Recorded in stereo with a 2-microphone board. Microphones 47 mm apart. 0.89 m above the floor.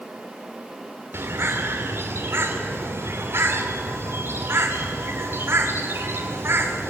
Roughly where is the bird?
Right.